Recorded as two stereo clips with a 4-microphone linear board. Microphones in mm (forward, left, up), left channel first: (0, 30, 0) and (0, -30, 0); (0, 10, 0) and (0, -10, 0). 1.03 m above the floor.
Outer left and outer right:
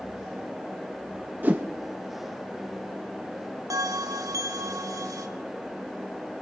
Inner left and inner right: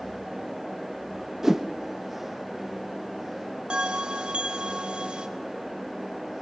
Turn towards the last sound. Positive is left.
turn(degrees=-75)  # may be behind; listen again after turning